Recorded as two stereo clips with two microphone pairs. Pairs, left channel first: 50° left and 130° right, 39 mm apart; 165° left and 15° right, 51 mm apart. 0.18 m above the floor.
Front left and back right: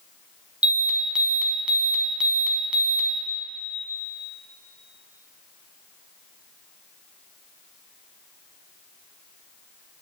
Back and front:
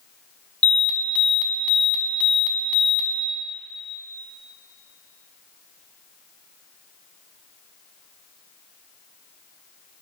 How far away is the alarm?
About 0.9 m.